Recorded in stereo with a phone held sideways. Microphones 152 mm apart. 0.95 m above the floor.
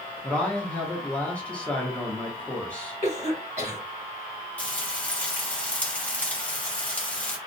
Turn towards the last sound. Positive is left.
turn(degrees=10)  # may be behind; listen again after turning